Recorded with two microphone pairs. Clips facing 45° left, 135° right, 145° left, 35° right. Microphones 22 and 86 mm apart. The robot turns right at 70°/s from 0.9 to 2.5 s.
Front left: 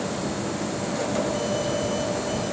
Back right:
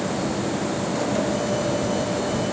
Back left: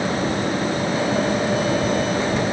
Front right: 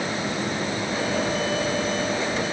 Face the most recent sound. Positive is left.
No sound to turn to.